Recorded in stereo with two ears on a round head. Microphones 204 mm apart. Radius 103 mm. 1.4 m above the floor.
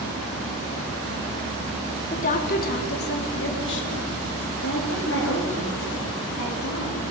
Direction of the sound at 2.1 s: 30° left (ahead or behind).